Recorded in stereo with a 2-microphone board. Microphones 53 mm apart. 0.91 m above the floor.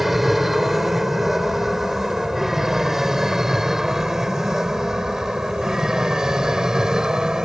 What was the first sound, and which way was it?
An aircraft, 5° right (ahead or behind).